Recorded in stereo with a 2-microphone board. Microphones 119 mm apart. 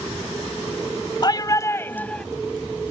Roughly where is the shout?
Left.